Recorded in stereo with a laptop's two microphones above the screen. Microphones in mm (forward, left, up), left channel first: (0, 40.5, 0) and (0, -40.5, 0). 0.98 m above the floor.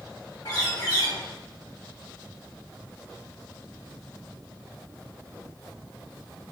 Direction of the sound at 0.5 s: 75° left (ahead or behind).